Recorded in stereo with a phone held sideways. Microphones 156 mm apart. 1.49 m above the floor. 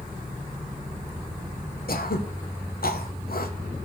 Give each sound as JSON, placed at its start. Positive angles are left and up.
{"t": 1.9, "sound": "throat clearing", "side_deg": 75, "distance_m": 0.9}